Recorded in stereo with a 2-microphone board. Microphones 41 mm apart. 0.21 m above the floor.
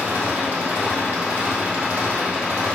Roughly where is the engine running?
Right.